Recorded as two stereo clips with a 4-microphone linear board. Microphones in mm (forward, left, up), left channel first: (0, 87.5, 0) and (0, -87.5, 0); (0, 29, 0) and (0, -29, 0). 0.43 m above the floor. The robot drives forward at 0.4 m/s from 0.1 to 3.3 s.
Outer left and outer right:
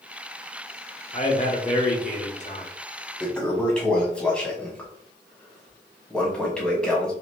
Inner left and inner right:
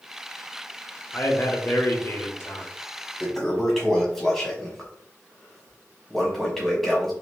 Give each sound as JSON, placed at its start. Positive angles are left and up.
{"t": 1.1, "sound": "a man speaking", "side_deg": 40, "distance_m": 1.3}
{"t": 3.2, "sound": "a toilet flushing", "side_deg": 5, "distance_m": 1.1}